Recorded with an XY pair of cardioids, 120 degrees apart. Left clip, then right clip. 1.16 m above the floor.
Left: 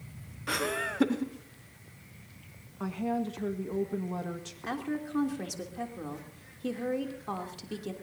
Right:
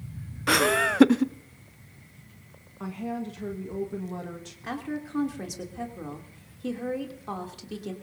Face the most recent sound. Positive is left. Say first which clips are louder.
# right 1 dB
turn(degrees=-10)